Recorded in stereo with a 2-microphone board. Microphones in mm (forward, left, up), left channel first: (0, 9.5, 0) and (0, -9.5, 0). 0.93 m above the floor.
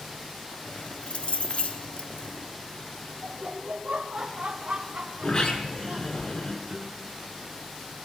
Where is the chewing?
I don't hear chewing.